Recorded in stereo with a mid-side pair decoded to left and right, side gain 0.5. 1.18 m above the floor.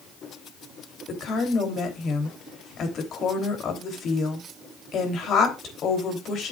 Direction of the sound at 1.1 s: 55° left.